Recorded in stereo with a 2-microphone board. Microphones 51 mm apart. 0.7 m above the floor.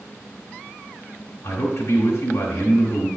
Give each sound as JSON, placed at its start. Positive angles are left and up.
{"t": 1.4, "sound": "a man speaking", "side_deg": 55, "distance_m": 2.0}